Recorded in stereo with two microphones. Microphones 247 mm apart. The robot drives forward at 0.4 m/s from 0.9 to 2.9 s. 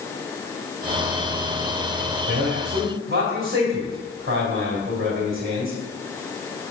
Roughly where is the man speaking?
Right.